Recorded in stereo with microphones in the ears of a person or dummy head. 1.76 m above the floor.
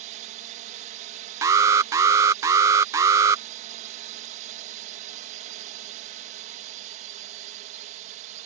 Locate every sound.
0.0 s a drone: 40° right (ahead or behind)
1.4 s an alarm: 15° right (ahead or behind)